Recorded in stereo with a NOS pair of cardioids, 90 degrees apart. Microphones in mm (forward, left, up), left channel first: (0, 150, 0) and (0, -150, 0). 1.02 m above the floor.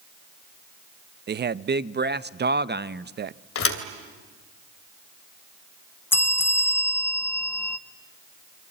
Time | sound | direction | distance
1.3 | a man speaking | 35° right | 0.8 m
3.5 | a thud | 50° left | 2.5 m
6.1 | a bell | 10° left | 1.0 m